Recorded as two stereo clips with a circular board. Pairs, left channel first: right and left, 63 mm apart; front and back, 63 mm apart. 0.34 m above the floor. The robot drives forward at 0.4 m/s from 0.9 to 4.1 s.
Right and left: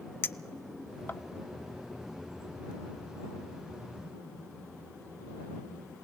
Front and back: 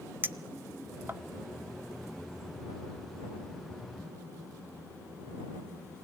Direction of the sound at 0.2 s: 130° right.